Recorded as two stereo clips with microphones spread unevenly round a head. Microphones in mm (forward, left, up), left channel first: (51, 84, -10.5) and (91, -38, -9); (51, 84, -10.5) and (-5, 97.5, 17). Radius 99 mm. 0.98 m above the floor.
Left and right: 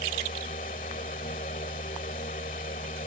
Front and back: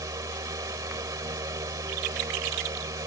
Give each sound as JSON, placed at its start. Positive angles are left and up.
{"t": 0.0, "sound": "a fan", "azimuth_deg": 160}